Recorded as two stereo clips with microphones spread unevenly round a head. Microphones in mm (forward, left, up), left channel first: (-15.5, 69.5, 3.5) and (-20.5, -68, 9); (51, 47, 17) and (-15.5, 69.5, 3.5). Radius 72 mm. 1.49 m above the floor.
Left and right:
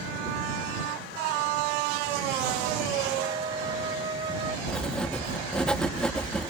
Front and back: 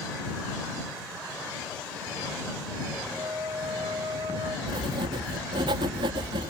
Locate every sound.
3.1 s a flute: 140° right
4.7 s writing: 170° left